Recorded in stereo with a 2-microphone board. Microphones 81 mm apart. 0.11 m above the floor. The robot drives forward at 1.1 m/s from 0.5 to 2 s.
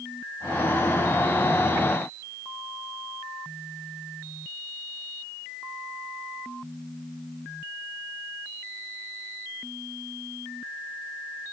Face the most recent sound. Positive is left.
No sound to turn to.